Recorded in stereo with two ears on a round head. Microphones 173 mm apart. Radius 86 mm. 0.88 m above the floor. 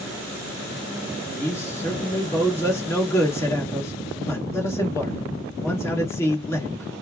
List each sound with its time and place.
1.4 s a man speaking: 15° left (ahead or behind), 1.5 m